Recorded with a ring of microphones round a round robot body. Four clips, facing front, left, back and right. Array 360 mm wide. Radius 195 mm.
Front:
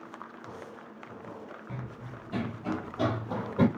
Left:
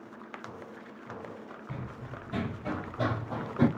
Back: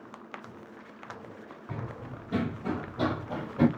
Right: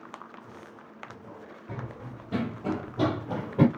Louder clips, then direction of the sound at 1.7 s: Right 4 dB, back 3 dB; 125° right.